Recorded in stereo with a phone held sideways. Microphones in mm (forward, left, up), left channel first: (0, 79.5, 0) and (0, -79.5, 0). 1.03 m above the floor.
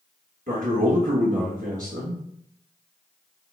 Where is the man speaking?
60° right (ahead or behind), 1.4 m.